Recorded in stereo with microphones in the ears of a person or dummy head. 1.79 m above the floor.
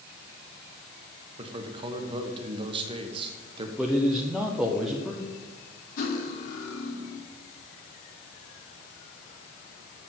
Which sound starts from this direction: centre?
A man speaking, at 3.8 s.